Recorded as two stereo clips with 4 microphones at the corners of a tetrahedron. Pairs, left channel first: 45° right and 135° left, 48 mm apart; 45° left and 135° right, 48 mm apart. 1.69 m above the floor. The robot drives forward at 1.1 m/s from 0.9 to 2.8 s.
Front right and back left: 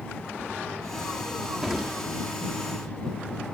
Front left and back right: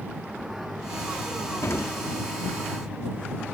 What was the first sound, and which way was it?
An explosion, 55° left.